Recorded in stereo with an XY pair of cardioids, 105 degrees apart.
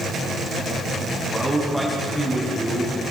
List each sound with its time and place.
1.3 s a man speaking: 5° left, 6.5 m